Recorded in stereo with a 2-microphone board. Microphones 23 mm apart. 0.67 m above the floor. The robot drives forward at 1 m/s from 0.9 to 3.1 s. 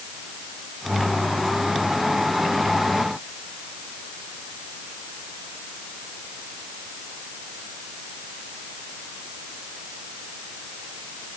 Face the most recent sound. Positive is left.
No sound to turn to.